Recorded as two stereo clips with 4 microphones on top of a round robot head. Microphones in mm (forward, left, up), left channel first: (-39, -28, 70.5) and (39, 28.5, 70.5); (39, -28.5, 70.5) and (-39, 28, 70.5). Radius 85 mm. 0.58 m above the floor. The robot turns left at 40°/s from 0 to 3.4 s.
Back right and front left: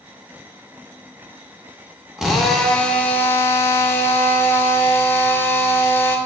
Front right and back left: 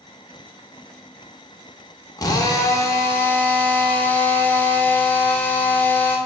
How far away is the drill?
About 0.7 m.